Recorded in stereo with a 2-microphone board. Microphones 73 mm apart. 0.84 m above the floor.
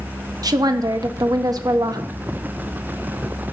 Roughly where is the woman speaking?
Right.